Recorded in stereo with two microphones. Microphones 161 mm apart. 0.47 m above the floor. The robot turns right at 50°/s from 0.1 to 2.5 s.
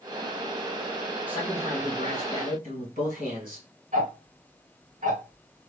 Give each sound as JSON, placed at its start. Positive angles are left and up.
{"t": 1.3, "sound": "a man speaking", "azimuth_deg": -170, "distance_m": 1.8}
{"t": 3.9, "sound": "ticking", "side_deg": -50, "distance_m": 1.6}